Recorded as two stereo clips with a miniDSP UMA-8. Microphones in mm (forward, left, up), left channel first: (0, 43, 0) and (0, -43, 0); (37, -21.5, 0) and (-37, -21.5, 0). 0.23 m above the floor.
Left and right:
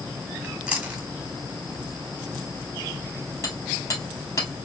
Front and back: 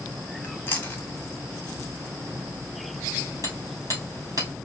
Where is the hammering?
145° left, 2 m.